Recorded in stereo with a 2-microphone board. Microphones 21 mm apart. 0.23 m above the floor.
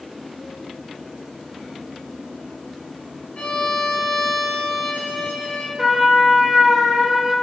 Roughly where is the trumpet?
Centre.